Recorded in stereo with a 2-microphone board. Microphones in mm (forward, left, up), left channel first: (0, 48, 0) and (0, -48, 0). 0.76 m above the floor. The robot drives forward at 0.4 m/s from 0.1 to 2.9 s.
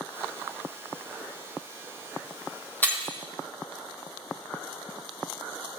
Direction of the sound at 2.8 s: 15° left (ahead or behind).